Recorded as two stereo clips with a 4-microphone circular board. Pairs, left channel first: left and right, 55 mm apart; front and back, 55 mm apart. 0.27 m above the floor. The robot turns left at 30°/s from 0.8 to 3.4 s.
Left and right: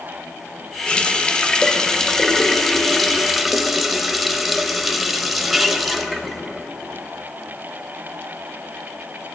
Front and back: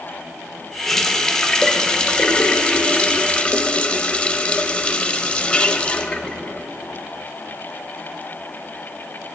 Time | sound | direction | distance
0.9 | a running tap | 75° left | 0.6 m